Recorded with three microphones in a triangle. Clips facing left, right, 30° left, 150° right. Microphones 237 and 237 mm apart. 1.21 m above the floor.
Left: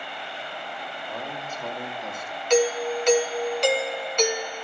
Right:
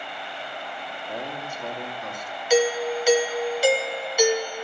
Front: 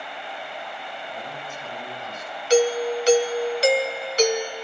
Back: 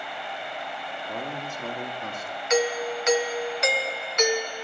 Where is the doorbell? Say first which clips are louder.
Even, front 6 dB; 10° right, 1.1 m.